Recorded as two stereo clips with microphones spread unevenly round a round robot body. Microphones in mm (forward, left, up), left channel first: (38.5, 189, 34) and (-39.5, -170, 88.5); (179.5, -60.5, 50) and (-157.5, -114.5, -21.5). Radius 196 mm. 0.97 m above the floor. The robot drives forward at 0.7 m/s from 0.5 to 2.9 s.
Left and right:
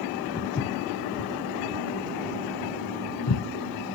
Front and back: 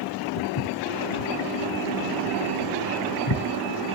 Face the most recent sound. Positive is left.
turn(degrees=30)